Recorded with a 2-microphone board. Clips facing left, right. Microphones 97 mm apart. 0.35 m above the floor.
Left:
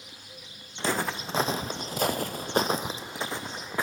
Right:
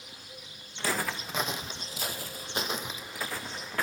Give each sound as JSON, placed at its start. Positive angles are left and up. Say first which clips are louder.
{"t": 0.8, "sound": "footsteps", "louder": "left 3 dB", "side_deg": 20, "distance_m": 1.2}